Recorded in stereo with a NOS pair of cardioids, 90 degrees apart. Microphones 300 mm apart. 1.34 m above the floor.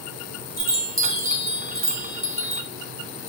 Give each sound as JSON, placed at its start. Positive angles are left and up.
{"t": 0.6, "sound": "a chime", "azimuth_deg": -30, "distance_m": 2.5}